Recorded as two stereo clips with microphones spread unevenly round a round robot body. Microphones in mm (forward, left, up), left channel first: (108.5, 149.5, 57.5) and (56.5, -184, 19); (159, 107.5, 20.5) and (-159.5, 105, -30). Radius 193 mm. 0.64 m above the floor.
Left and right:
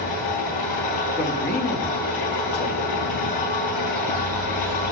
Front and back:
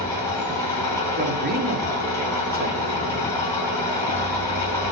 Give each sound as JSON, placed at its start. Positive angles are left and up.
{"t": 0.0, "sound": "an engine running", "azimuth_deg": 80, "distance_m": 4.0}
{"t": 1.2, "sound": "a man speaking", "azimuth_deg": 145, "distance_m": 1.2}